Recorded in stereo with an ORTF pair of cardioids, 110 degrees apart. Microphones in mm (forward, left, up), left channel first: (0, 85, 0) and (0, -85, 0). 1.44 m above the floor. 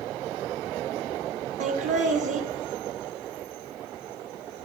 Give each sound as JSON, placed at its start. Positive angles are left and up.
{"t": 1.6, "sound": "laughter", "azimuth_deg": -50, "distance_m": 0.9}